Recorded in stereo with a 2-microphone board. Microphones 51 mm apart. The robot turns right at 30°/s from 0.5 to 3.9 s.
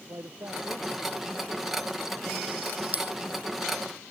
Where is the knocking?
No knocking in this recording.